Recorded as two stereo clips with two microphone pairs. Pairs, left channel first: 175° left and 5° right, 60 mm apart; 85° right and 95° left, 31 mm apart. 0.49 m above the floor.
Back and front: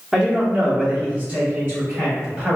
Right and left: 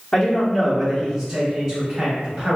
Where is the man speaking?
55° right, 0.8 m; by 2.6 s 40° left, 1.4 m.